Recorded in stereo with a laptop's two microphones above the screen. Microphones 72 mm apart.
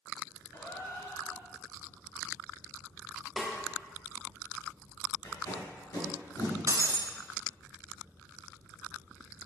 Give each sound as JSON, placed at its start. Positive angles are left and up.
{"t": 0.5, "sound": "a gasp", "side_deg": 50, "distance_m": 1.5}
{"t": 3.4, "sound": "a snare drum", "side_deg": -10, "distance_m": 1.3}
{"t": 5.2, "sound": "tape being pulled", "side_deg": 65, "distance_m": 2.5}
{"t": 6.7, "sound": "breaking glass", "side_deg": -45, "distance_m": 0.5}